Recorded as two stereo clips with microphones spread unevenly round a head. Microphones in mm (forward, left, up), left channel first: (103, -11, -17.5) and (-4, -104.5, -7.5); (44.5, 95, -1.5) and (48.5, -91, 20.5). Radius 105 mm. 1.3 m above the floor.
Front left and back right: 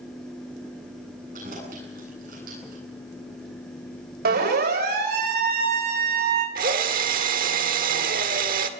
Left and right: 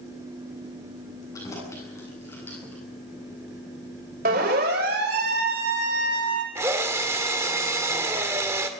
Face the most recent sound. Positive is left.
turn(degrees=-165)